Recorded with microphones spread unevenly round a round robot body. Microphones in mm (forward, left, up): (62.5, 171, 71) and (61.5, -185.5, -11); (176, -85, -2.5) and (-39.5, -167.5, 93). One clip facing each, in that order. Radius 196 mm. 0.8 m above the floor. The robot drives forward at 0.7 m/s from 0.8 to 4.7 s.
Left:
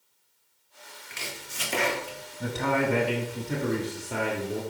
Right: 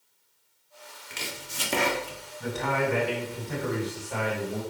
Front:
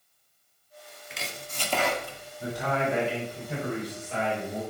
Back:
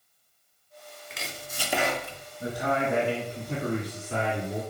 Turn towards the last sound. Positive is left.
turn(degrees=155)